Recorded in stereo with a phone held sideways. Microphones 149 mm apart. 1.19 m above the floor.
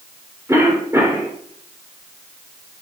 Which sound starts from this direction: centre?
A cough, at 0.5 s.